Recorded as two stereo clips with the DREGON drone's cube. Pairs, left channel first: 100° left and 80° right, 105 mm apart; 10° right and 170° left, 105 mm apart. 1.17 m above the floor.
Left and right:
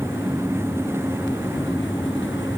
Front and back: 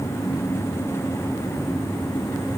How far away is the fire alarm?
No fire alarm in this recording.